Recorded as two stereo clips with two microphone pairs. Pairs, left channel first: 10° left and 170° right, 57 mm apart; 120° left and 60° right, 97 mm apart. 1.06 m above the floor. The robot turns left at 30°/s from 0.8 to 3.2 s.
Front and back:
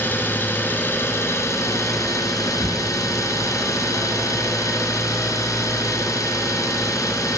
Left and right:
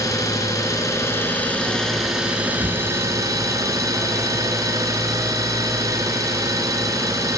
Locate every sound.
0.0 s an engine running: 65° left, 3.5 m; by 7.4 s 5° right, 3.5 m